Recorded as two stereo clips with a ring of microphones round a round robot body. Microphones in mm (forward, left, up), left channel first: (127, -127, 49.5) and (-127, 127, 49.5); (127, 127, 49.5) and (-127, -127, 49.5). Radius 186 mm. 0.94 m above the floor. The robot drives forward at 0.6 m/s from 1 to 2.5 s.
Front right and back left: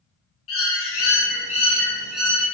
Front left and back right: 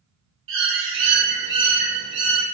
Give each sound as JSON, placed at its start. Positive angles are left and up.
{"t": 0.5, "sound": "a bird", "azimuth_deg": -90, "distance_m": 0.8}